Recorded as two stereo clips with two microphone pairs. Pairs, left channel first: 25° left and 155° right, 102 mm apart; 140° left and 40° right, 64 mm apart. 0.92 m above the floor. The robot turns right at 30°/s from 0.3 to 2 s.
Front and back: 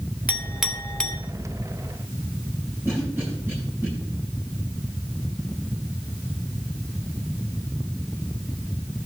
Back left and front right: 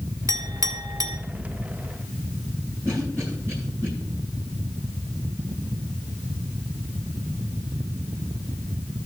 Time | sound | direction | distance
0.3 | a clink | 80° right | 1.8 m
2.9 | a cough | 90° right | 9 m